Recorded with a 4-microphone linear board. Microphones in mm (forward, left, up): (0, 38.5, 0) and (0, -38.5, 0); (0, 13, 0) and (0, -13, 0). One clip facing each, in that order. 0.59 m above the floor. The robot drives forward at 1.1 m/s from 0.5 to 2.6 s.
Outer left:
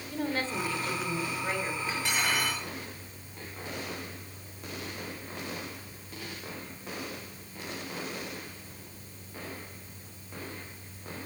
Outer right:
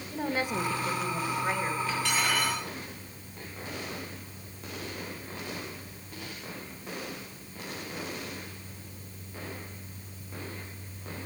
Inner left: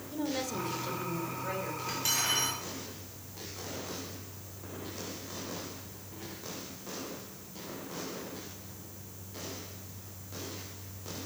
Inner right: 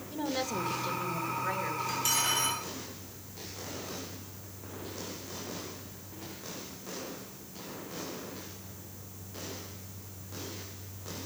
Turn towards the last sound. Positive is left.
turn(degrees=15)  # may be behind; listen again after turning